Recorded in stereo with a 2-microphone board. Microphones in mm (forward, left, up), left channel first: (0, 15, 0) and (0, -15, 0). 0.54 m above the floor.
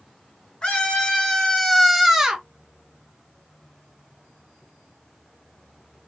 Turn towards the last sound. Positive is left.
turn(degrees=-25)  # may be behind; listen again after turning